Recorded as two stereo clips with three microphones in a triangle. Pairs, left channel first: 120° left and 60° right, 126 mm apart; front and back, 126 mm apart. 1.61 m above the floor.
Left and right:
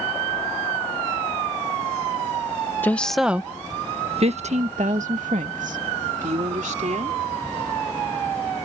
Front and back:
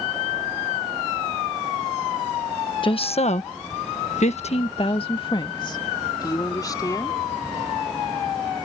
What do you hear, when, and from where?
2.8 s a woman speaking: 45° left; by 7.2 s 60° right